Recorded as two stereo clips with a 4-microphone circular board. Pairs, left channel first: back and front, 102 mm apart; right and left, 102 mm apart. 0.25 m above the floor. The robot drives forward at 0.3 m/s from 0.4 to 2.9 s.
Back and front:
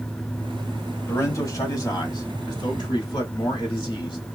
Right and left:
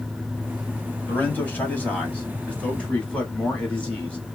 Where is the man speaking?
145° right, 1.1 m; by 4.2 s 165° right, 1.4 m.